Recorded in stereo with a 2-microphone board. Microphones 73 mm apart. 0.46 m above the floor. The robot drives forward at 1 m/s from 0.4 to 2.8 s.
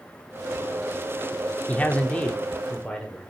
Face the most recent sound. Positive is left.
turn(degrees=15)  # may be behind; listen again after turning